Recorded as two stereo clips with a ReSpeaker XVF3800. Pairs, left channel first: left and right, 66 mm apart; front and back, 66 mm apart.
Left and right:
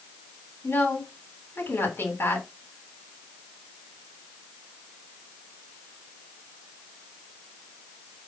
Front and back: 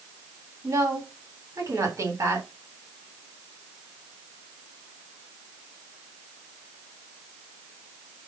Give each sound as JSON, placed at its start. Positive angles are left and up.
{"t": 0.6, "sound": "a woman speaking", "azimuth_deg": 145, "distance_m": 3.0}